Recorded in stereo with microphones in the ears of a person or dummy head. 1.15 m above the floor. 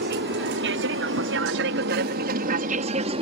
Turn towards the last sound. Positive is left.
turn(degrees=-40)  # may be behind; listen again after turning